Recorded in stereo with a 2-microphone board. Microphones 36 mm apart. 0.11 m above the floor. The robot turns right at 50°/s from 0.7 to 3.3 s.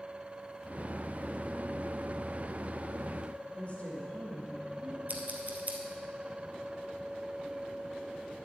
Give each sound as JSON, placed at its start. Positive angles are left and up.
{"t": 3.5, "sound": "a woman speaking", "side_deg": 40, "distance_m": 4.5}
{"t": 5.1, "sound": "scissors", "side_deg": -45, "distance_m": 1.8}